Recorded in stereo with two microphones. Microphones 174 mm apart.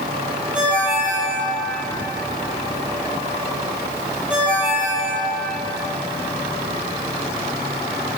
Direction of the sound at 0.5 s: 5° right (ahead or behind).